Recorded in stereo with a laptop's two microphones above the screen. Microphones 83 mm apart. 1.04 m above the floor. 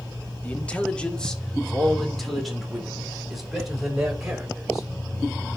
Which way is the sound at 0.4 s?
20° left (ahead or behind).